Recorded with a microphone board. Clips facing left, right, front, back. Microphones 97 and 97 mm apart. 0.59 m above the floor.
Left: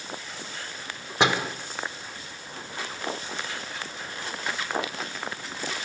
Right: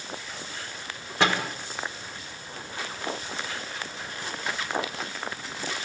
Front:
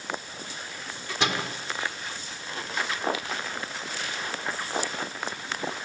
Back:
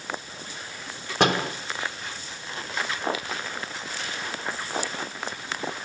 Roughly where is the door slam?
Behind.